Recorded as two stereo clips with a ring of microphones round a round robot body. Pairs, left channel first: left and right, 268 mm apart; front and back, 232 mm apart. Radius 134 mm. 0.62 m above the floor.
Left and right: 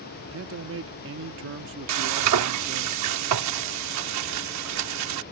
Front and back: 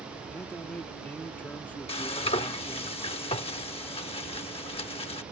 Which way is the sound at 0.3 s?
80° right.